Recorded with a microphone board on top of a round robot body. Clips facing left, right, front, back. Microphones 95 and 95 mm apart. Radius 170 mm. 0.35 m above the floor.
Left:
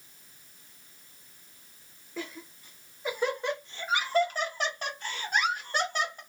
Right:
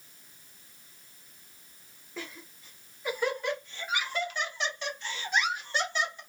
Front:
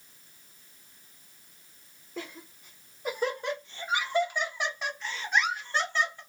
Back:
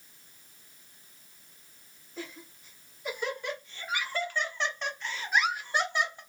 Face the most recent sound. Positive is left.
turn(degrees=115)